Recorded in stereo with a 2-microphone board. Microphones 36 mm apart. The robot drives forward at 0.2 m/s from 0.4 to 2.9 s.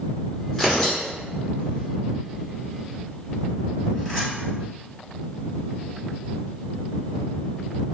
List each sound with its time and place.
0.5 s tearing paper: 5° left (ahead or behind), 1.9 m